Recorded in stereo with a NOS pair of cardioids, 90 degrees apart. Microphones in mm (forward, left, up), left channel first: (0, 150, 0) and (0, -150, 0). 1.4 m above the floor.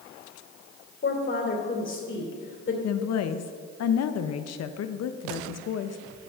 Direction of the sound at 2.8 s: 60° left.